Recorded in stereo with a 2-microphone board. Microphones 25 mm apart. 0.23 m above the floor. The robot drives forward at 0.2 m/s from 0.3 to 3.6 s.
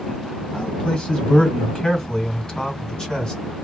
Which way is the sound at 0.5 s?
40° left (ahead or behind).